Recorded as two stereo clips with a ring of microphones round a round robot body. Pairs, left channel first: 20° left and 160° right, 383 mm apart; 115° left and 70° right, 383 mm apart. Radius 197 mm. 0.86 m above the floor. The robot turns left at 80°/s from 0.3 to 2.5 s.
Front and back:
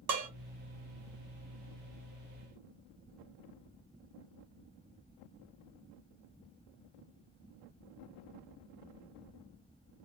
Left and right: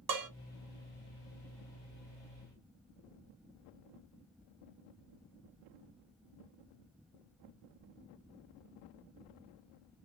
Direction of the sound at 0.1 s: 110° right.